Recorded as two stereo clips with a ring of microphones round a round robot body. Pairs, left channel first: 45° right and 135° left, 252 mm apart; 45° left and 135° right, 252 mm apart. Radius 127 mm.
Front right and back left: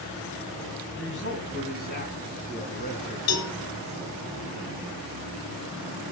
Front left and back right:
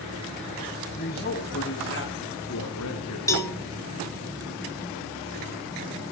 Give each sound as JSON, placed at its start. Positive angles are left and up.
{"t": 1.0, "sound": "a man speaking", "azimuth_deg": -5, "distance_m": 3.0}
{"t": 3.3, "sound": "a cowbell", "azimuth_deg": -30, "distance_m": 3.5}